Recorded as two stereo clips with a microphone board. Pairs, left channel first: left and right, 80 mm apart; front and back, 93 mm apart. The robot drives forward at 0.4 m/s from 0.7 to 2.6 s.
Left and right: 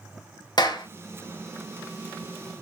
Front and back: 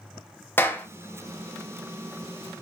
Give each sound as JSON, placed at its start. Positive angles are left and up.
{"t": 0.6, "sound": "a clap", "azimuth_deg": 65, "distance_m": 0.6}